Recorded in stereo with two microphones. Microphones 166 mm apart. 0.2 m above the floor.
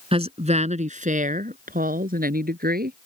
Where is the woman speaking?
35° right (ahead or behind); by 3.0 s 65° right (ahead or behind).